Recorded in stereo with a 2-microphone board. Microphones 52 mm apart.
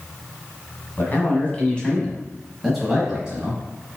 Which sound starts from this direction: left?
A man speaking, at 1.0 s.